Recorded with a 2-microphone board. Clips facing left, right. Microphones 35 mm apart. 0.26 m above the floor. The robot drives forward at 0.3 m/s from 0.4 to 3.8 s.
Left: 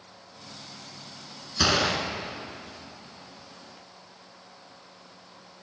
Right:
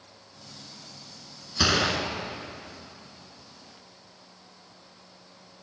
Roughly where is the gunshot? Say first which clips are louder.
Even; centre.